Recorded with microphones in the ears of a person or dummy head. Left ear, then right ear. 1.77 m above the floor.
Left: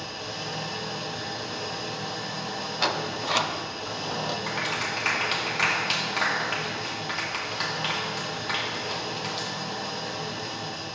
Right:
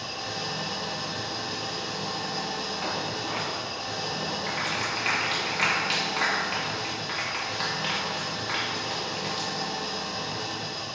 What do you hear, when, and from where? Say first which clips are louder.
0.0 s an engine running: right 2 dB; 40° right (ahead or behind), 2.5 m
2.8 s a sliding door: left 3 dB; 60° left (ahead or behind), 0.7 m
4.5 s a clap: right 1 dB; 5° left (ahead or behind), 2 m